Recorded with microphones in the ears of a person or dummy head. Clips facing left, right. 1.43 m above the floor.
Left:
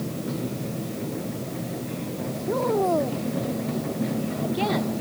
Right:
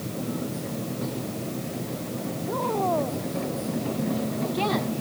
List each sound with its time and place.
2.5 s a woman speaking: 35° left (ahead or behind); by 4.9 s centre (ahead or behind)